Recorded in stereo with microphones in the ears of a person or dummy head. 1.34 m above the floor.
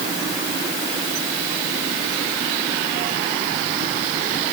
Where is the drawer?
No drawer in this recording.